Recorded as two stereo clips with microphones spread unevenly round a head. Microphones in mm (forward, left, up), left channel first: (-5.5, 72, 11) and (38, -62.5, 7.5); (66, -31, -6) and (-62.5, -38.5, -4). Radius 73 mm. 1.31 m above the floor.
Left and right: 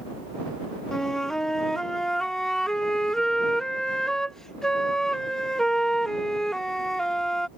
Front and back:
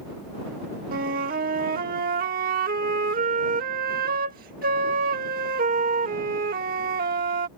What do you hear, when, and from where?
0.9 s a flute: 165° right